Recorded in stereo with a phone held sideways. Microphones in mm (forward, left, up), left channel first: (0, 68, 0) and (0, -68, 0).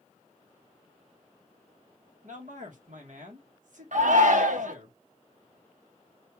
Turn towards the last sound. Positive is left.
turn(degrees=-65)  # may be behind; listen again after turning